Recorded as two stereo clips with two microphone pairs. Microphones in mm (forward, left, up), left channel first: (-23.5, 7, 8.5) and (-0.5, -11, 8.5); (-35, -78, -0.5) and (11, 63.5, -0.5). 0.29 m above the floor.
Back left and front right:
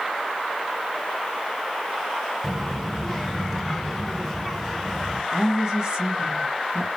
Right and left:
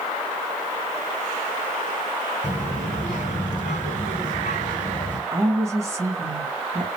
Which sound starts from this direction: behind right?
A child speaking, at 2.4 s.